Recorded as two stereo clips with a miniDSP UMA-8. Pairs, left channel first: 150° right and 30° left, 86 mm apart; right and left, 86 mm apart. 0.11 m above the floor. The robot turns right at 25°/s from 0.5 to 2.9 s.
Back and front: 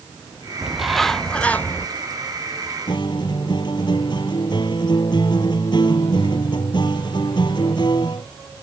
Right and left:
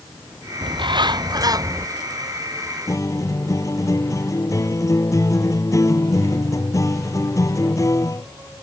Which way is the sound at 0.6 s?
110° left.